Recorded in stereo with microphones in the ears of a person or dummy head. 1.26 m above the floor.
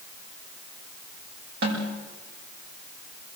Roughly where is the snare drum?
Right.